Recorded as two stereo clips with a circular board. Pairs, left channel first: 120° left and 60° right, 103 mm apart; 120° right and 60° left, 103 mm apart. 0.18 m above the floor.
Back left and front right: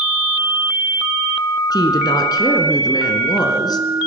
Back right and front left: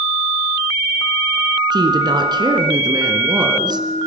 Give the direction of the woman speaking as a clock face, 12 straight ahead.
9 o'clock.